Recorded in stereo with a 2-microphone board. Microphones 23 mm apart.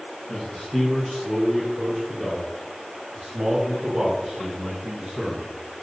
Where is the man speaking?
Centre (ahead or behind), 3.5 m; by 5.5 s 40° right (ahead or behind), 6.5 m.